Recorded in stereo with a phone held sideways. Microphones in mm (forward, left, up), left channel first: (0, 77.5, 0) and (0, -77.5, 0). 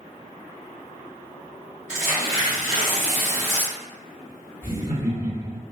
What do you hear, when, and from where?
1.9 s tearing paper: 60° right (ahead or behind), 1.2 m
4.6 s laughter: 60° right (ahead or behind), 2.0 m